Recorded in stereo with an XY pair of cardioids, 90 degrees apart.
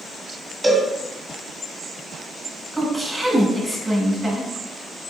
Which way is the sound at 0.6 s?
20° right.